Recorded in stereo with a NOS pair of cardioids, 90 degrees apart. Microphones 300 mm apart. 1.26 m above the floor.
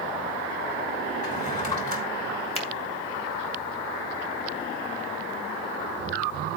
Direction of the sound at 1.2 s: 25° left.